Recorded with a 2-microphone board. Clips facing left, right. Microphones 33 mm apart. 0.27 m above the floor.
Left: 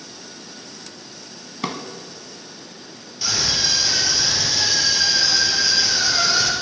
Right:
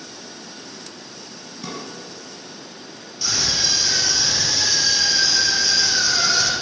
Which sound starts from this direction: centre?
A scream, at 3.2 s.